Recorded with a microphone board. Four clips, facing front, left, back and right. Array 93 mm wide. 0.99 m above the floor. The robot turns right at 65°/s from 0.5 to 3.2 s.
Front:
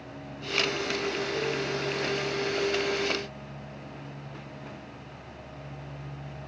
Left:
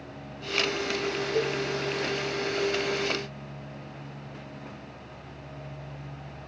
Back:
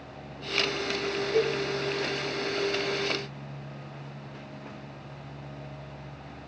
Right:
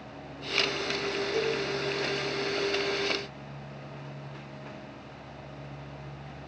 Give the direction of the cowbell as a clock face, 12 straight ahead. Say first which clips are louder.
Left 2 dB, back 4 dB; 5 o'clock.